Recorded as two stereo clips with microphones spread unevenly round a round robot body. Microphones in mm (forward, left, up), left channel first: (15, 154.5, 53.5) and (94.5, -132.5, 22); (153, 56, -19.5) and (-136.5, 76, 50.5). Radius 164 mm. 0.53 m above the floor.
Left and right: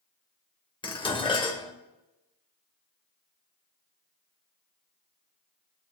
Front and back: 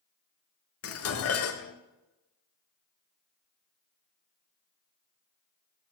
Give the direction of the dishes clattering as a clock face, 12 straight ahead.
11 o'clock.